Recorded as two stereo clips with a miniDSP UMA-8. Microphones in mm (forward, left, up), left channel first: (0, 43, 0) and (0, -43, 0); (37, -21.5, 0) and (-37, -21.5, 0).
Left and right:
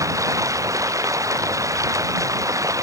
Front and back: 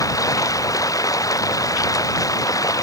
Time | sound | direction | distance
0.0 | running water | 40° right | ?